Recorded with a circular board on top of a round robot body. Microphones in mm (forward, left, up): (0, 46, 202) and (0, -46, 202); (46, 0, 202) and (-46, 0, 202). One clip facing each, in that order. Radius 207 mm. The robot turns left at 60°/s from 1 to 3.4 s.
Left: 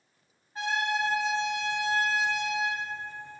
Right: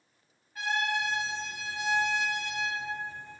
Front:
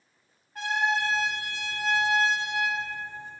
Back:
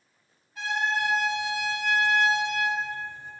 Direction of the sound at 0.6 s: 30° left.